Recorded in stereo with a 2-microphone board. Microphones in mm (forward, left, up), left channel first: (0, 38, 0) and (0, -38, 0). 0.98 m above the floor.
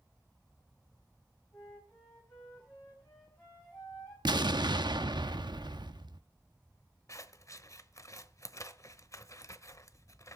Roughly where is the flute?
Left.